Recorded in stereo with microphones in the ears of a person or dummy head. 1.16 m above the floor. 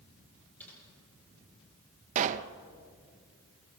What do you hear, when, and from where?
0.6 s typing on a keyboard: 10° left (ahead or behind), 9.5 m
2.1 s a pop: 45° right (ahead or behind), 0.7 m